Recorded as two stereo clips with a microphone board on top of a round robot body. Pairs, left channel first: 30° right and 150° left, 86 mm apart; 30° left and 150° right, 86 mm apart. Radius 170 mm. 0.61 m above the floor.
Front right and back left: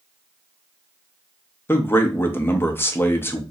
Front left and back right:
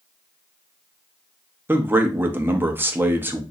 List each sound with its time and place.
1.7 s a man speaking: 90° right, 0.9 m